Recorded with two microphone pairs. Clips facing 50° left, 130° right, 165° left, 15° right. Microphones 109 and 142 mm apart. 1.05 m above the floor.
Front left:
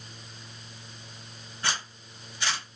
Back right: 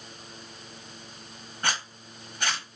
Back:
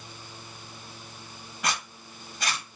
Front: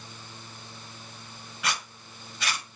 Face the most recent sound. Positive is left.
turn(degrees=-155)